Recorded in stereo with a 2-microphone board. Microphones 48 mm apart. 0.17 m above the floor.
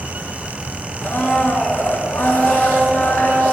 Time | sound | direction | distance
1.0 | a blender | 45° left (ahead or behind) | 1.9 m